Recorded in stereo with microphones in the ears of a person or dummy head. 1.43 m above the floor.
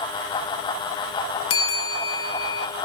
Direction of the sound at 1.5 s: 70° left (ahead or behind).